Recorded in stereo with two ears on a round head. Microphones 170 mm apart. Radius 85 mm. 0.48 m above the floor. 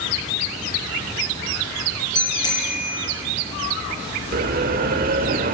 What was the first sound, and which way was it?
A bicycle bell, 20° left (ahead or behind).